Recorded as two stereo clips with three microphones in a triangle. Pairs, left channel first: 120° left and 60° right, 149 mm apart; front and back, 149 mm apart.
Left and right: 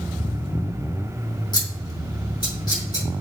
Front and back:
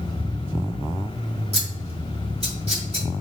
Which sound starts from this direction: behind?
Scissors, at 1.5 s.